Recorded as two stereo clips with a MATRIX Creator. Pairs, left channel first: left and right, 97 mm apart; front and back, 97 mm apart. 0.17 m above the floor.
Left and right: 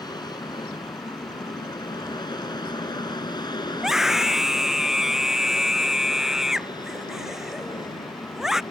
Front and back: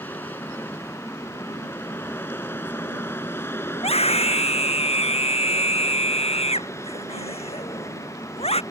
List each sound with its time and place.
0.0 s an aircraft: 65° left; by 8.7 s 55° left
3.8 s a scream: 5° right